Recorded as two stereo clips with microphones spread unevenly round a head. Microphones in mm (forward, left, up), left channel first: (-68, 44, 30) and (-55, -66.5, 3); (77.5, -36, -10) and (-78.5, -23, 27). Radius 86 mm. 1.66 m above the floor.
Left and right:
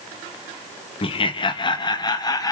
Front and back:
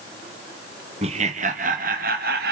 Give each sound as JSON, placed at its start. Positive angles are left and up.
{"t": 1.0, "sound": "laughter", "azimuth_deg": 125, "distance_m": 1.7}